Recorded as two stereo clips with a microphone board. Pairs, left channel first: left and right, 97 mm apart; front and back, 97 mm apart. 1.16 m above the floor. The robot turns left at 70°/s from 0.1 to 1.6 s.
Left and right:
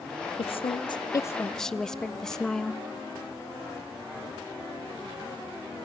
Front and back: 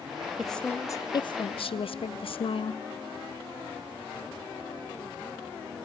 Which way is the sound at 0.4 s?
90° left.